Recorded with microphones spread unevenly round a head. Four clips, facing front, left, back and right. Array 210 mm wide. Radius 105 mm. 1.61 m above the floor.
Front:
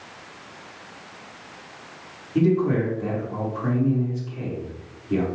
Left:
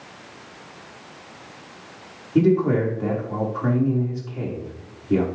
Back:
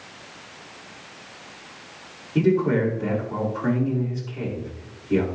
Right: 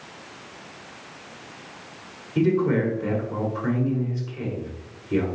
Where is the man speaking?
95° left, 4.5 m.